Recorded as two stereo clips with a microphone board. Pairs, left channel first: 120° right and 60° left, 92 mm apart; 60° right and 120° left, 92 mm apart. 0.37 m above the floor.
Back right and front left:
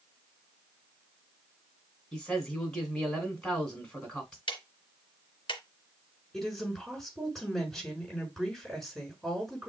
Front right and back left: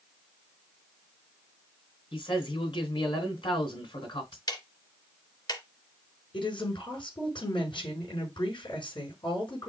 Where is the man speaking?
35° right, 2.5 m.